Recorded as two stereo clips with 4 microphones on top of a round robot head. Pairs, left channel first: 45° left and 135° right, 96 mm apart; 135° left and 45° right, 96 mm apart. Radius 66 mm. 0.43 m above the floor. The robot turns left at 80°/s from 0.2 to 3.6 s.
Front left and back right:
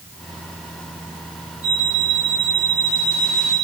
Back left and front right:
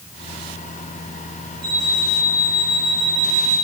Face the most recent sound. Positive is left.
turn(degrees=-160)